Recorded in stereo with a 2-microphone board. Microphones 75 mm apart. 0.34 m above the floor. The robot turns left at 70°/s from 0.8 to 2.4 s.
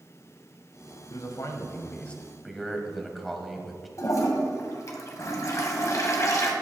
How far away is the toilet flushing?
About 1.5 m.